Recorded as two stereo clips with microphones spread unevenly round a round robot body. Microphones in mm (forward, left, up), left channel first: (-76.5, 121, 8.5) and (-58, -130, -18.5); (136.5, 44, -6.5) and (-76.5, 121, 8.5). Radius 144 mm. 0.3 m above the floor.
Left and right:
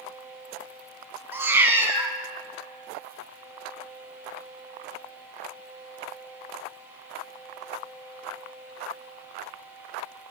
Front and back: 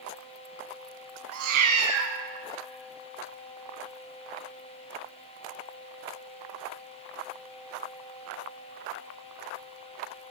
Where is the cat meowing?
165° right, 0.9 m.